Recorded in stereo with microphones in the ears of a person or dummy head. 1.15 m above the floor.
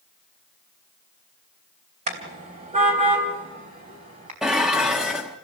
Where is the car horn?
35° right (ahead or behind), 2.5 m.